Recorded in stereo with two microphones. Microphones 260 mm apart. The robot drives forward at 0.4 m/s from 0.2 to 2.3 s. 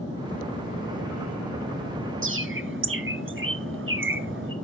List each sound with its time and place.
2.2 s a bird: 50° right (ahead or behind), 0.5 m